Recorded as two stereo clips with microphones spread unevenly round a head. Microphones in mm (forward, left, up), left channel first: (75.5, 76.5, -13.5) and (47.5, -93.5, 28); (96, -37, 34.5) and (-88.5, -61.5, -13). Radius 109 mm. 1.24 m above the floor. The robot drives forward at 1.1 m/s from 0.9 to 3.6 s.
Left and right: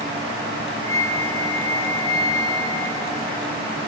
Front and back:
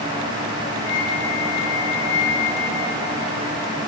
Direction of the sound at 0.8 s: 5° left.